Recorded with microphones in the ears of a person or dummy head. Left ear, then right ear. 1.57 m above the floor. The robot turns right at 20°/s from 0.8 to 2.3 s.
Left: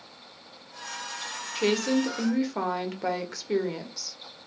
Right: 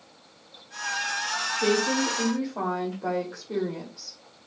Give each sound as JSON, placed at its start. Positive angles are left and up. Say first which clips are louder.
{"t": 1.6, "sound": "a woman speaking", "louder": "even", "side_deg": 65, "distance_m": 1.2}